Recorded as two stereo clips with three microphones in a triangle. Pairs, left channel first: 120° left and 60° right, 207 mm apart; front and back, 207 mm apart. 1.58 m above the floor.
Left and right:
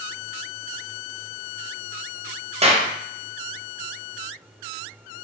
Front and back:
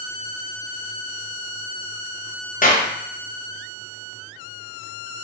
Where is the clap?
20° right, 0.6 m.